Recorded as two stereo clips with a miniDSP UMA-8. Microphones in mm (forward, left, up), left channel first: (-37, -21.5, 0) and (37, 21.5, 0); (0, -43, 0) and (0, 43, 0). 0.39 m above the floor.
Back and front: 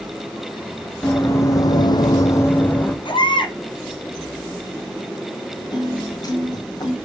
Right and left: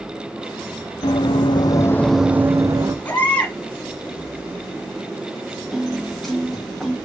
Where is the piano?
Straight behind, 1.8 m.